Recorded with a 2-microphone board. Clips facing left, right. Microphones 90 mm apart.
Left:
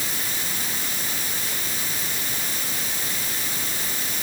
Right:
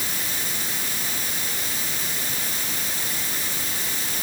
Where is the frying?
No frying in this recording.